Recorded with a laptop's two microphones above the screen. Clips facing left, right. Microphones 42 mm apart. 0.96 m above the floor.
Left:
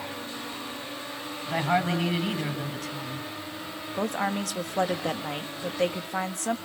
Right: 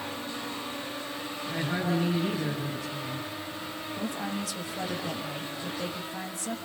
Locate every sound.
1.5 s a woman speaking: 80° left, 4 m
4.0 s a woman speaking: 65° left (ahead or behind), 1.6 m